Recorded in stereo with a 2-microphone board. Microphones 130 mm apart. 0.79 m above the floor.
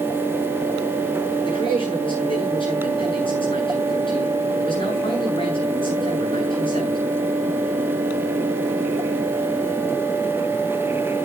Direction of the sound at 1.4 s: 40° left (ahead or behind).